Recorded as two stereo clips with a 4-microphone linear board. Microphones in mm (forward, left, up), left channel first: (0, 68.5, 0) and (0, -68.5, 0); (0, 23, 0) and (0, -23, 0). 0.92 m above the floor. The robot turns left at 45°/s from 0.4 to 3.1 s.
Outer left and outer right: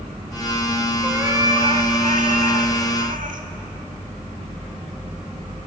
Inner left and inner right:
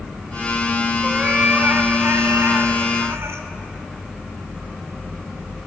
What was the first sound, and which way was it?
A cat meowing, 15° right.